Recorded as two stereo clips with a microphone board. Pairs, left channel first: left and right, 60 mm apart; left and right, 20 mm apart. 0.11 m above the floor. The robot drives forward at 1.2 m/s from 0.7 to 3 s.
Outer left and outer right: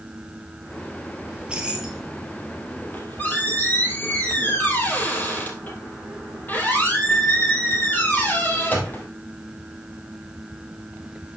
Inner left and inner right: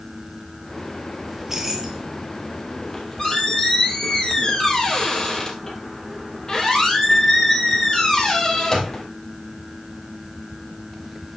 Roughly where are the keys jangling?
Centre.